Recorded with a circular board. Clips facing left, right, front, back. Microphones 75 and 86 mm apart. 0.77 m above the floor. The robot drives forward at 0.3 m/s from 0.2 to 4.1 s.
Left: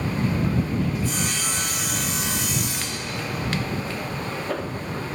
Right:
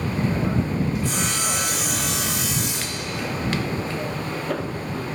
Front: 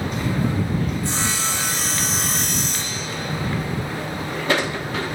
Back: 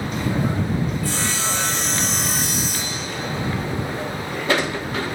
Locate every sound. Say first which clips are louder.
1.0 s sawing: right 2 dB, even; 70° right, 0.9 m; by 3.1 s 105° right, 0.9 m